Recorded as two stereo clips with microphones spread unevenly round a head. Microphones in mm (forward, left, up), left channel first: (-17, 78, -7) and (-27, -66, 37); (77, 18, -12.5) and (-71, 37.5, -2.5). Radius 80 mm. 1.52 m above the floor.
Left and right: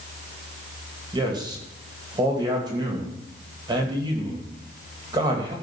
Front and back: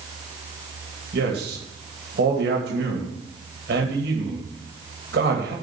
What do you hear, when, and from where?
1.1 s a man speaking: 155° right, 2.5 m